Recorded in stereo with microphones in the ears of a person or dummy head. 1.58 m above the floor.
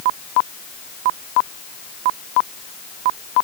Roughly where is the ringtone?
I don't hear a ringtone.